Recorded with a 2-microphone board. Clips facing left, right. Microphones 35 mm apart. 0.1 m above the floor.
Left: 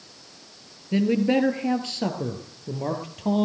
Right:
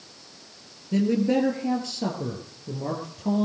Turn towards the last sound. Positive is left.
turn(degrees=55)  # may be behind; listen again after turning